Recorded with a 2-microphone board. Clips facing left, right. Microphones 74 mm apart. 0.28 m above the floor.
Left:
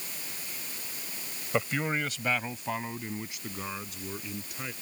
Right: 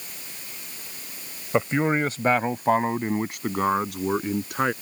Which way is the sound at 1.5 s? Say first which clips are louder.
Right 7 dB; 25° right (ahead or behind).